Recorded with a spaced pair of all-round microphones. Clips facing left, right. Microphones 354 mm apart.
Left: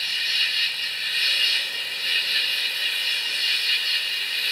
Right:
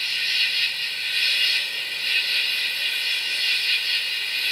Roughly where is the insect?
Right.